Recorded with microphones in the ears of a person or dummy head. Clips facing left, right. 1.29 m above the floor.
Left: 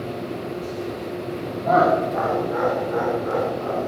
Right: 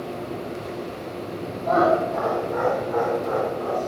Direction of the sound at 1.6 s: 40° left (ahead or behind).